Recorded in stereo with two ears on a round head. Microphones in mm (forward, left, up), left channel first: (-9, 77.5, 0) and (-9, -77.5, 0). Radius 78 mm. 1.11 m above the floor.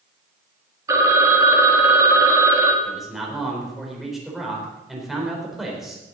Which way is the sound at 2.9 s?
Centre (ahead or behind).